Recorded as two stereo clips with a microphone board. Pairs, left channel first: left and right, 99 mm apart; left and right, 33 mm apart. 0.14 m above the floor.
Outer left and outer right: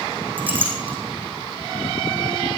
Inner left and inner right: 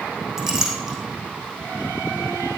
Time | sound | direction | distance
0.4 | a clink | 15° right (ahead or behind) | 4 m